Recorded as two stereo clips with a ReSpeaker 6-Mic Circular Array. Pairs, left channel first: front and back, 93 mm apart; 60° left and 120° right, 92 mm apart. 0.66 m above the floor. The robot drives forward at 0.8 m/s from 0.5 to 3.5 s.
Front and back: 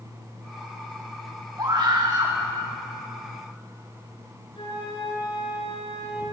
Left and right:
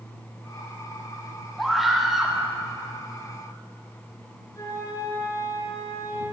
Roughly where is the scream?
Behind left.